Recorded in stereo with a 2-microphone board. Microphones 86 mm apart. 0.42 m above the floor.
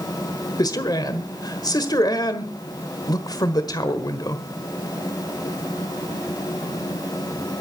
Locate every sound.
0.6 s a man speaking: 50° left (ahead or behind), 1.3 m